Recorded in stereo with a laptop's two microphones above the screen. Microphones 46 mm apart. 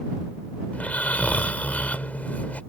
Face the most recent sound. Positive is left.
turn(degrees=30)  # may be behind; listen again after turning